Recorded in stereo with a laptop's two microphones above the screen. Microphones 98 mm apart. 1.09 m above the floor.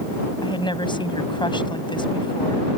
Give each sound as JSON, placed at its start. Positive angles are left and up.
{"t": 0.4, "sound": "a woman speaking", "side_deg": 50}